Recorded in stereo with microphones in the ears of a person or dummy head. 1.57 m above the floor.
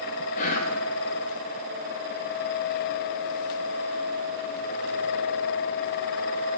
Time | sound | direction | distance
0.3 | whispering | 50° left (ahead or behind) | 0.9 m